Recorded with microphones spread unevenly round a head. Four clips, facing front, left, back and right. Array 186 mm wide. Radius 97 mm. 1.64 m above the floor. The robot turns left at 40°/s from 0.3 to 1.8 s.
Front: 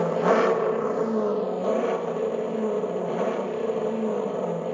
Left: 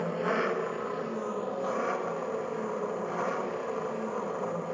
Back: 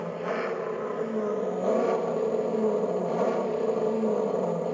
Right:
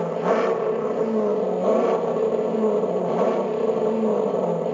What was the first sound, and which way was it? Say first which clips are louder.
An engine running: right 8 dB, front 10 dB; 30° right.